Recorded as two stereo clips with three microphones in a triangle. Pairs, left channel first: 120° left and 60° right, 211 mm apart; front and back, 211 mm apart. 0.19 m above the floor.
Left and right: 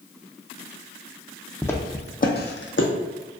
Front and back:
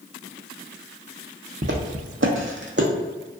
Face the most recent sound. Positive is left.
turn(degrees=140)